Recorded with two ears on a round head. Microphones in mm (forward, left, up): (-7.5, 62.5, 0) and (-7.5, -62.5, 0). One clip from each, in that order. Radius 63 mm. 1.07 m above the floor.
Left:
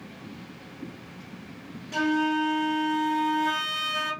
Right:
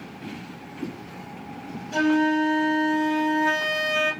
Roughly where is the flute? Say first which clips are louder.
Right 4 dB; centre.